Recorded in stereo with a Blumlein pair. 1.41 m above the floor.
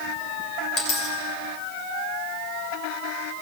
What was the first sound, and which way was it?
A dropped coin, 30° left.